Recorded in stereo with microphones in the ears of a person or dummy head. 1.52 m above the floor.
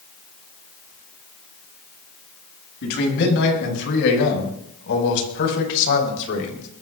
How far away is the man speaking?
About 7 m.